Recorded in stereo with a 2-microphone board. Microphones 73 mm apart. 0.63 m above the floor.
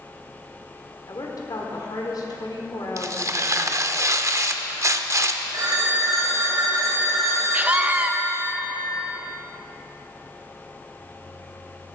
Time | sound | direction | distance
1.1 | a woman speaking | 65° left (ahead or behind) | 1.7 m
3.0 | tearing paper | 45° right (ahead or behind) | 0.6 m
5.5 | a phone ringing | 60° right (ahead or behind) | 2.5 m
7.5 | a scream | 20° right (ahead or behind) | 0.5 m